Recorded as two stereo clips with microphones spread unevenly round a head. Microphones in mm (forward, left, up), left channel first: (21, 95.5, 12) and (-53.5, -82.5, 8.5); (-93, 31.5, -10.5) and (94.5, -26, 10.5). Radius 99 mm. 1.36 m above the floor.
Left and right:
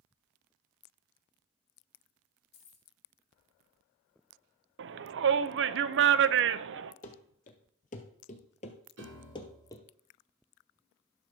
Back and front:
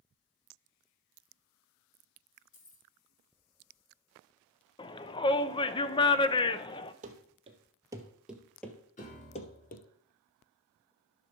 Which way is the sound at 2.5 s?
105° left.